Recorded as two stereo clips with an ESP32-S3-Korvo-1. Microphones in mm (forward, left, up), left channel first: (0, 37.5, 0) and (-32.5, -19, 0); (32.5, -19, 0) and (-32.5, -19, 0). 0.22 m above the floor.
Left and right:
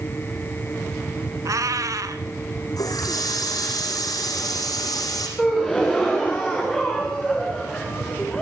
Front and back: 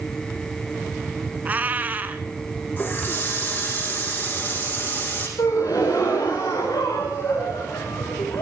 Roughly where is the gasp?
Ahead right.